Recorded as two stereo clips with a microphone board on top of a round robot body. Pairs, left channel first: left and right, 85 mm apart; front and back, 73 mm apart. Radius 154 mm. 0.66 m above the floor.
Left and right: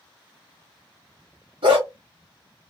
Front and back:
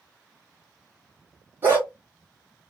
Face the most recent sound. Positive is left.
turn(degrees=-115)